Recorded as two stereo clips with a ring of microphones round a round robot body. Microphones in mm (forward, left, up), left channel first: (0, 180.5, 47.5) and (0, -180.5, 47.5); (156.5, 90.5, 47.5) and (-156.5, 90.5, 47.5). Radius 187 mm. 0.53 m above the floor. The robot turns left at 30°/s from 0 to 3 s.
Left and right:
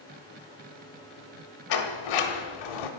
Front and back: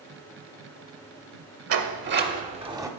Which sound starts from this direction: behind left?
A sliding door, at 1.7 s.